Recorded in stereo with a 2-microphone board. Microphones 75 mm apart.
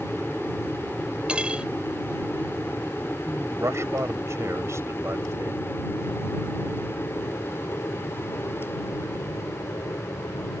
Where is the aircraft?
5° left (ahead or behind); by 10.6 s 50° left (ahead or behind).